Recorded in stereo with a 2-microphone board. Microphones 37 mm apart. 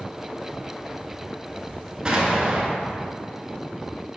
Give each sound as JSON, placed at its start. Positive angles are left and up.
{"t": 2.0, "sound": "an explosion", "side_deg": -25, "distance_m": 0.6}